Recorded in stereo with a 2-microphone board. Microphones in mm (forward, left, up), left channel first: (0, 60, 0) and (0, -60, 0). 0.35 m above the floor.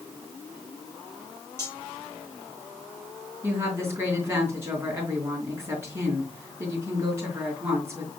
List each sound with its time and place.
1.6 s cutlery clinking: 20° left (ahead or behind), 5.5 m
3.4 s a woman speaking: 20° right (ahead or behind), 4 m